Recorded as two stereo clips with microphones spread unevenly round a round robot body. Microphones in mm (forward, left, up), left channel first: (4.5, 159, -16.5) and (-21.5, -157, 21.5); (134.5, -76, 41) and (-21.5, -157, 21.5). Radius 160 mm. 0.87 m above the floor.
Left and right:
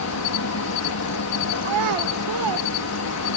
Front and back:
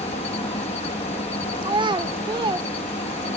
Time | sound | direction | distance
0.0 | an insect | 85° left | ?
1.6 | a child speaking | 85° right | ?